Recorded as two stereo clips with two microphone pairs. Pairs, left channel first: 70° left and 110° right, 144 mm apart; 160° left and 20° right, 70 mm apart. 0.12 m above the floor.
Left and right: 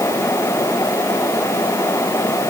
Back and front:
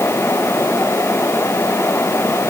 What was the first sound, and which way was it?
Only background noise.